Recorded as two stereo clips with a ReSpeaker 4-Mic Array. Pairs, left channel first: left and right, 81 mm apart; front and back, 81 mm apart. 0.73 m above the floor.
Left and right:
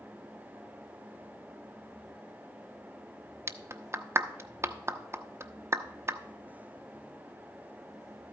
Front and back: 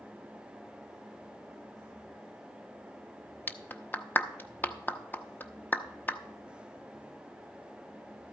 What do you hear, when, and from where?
3.5 s a clap: 55° right, 0.7 m